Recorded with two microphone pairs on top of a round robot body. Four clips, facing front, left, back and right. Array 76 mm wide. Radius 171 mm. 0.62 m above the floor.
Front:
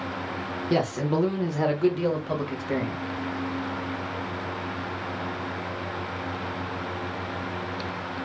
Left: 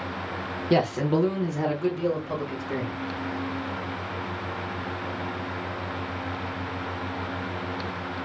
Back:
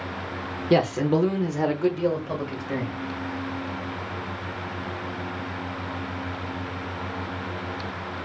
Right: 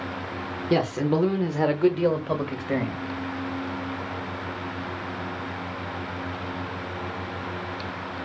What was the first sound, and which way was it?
A man speaking, 160° left.